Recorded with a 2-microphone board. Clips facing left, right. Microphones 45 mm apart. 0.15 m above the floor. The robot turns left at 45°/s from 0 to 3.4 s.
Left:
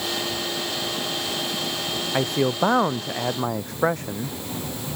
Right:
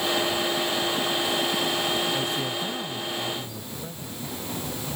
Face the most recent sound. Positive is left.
turn(degrees=80)